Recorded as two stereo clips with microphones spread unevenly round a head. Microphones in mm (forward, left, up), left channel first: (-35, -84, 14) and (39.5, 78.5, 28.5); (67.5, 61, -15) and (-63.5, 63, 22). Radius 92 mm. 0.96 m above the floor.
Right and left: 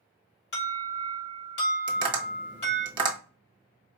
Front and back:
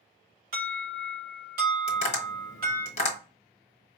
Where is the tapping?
Straight ahead, 1.4 m.